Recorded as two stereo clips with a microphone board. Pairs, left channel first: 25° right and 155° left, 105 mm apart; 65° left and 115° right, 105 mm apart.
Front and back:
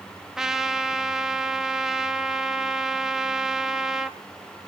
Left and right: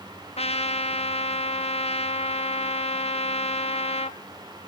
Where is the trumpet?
75° left, 1.1 m.